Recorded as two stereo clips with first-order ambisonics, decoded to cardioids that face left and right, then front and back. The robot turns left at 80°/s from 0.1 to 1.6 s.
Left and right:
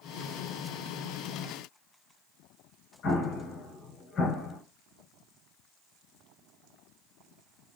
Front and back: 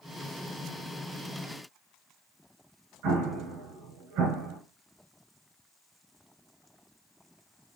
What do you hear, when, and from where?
3.0 s an explosion: 145° left, 3 m